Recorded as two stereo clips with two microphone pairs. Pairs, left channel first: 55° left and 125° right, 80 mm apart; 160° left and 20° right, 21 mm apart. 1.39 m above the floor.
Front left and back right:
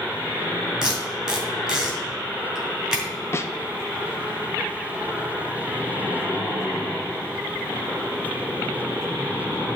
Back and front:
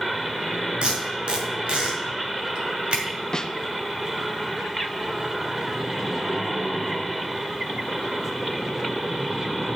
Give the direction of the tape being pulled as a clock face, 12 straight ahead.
2 o'clock.